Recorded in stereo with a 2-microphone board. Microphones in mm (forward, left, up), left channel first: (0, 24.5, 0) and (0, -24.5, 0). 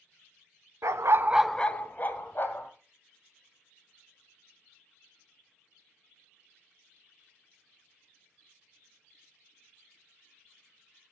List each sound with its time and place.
0.8 s a dog barking: 75° right (ahead or behind), 0.8 m; by 2.7 s 45° left (ahead or behind), 2 m